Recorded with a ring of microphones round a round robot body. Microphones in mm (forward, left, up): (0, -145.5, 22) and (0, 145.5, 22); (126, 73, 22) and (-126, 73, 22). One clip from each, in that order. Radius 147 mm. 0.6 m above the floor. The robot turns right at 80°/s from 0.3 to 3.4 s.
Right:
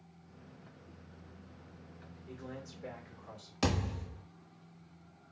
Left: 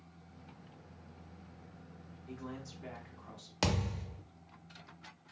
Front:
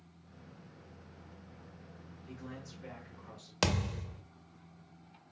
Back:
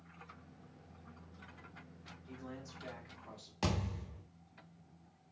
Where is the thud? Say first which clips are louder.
Even, front 6 dB; 25° left, 0.6 m.